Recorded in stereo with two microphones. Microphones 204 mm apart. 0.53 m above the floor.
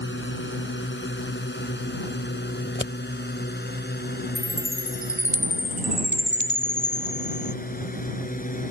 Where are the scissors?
70° left (ahead or behind).